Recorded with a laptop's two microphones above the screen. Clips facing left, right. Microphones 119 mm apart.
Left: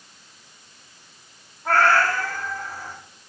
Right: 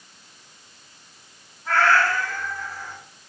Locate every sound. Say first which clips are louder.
1.6 s a cat meowing: left 1 dB; 55° left (ahead or behind), 8 m